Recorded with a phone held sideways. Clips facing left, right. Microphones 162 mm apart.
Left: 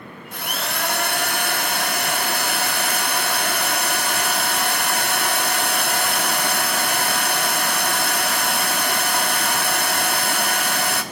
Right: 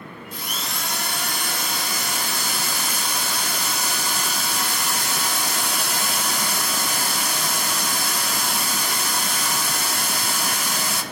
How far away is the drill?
About 1.9 m.